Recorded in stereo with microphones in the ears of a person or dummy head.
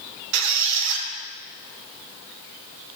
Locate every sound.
0.3 s a squeak: 65° right (ahead or behind), 0.7 m